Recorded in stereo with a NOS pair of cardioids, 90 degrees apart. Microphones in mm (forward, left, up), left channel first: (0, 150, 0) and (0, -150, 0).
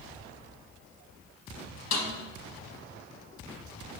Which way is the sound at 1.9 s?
65° left.